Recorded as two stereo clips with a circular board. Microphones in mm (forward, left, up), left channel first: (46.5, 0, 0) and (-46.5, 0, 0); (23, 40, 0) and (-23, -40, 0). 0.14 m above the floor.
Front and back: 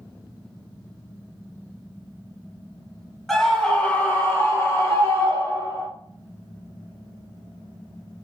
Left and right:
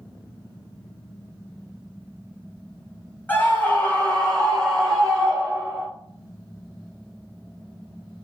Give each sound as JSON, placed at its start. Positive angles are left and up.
{"t": 3.3, "sound": "a scream", "azimuth_deg": 75, "distance_m": 1.2}